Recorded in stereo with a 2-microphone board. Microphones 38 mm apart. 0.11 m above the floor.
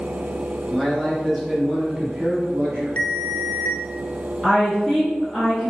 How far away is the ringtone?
About 0.9 m.